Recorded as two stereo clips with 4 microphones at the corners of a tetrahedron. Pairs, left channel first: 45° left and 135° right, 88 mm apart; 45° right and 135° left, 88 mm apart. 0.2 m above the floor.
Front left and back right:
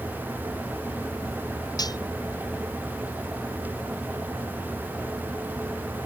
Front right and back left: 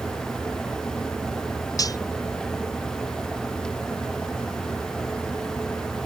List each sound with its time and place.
1.8 s cutlery clinking: straight ahead